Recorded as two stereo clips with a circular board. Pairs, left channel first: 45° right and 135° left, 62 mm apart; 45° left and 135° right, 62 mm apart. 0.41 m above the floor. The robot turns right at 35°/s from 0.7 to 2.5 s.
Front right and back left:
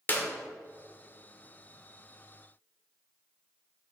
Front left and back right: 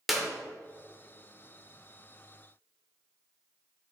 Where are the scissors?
No scissors in this recording.